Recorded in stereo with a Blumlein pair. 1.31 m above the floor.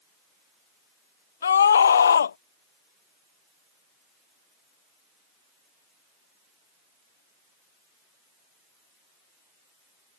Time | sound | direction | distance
1.4 | a scream | 70° left | ?